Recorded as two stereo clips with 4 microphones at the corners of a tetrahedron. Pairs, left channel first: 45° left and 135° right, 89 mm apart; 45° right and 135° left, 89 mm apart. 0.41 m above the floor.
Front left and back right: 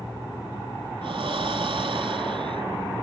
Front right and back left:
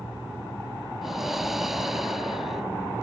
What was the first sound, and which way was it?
Breathing, 140° right.